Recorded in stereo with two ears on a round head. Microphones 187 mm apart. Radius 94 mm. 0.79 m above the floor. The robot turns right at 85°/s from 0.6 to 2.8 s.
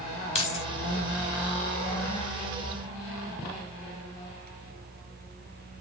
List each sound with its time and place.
0.3 s keys jangling: 30° left (ahead or behind), 1.6 m; by 0.7 s 25° left (ahead or behind), 1.6 m